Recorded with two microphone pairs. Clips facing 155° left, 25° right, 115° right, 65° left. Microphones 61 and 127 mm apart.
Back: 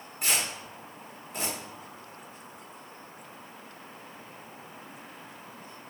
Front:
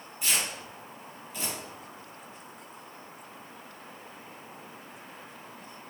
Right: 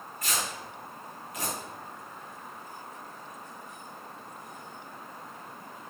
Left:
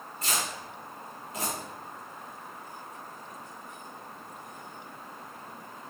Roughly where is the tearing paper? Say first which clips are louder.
Back 1 dB, left 1 dB; behind left.